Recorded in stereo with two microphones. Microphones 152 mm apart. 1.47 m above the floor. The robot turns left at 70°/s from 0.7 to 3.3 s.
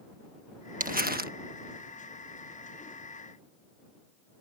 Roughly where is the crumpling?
Ahead right.